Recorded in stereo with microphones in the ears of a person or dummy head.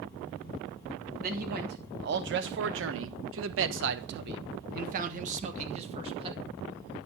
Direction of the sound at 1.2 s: 50° right (ahead or behind).